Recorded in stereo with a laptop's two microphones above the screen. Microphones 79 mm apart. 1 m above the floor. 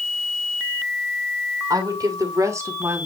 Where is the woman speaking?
55° right (ahead or behind), 3 m; by 3.1 s 30° right (ahead or behind), 2.5 m.